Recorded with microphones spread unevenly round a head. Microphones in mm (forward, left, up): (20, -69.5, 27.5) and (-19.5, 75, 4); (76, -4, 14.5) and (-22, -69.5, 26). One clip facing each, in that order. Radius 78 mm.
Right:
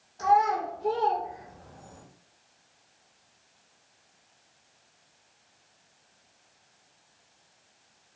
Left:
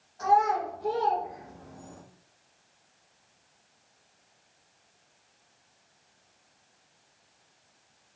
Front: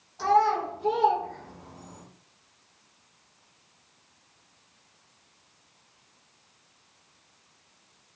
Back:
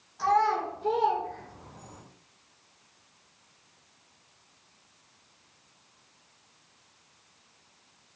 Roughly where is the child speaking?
Ahead.